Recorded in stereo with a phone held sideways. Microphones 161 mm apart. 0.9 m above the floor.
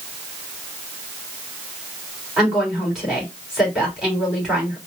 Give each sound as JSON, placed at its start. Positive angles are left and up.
{"t": 2.4, "sound": "a woman speaking", "side_deg": -5, "distance_m": 2.5}